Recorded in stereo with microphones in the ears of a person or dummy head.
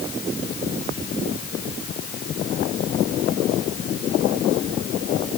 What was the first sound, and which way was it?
Only background noise.